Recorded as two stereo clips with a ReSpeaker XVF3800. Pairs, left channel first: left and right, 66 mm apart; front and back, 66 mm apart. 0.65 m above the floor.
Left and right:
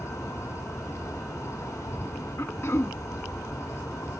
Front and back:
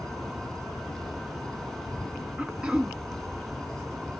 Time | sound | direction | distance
0.0 | an insect | 85° left | 1.5 m
2.4 | throat clearing | 110° left | 1.2 m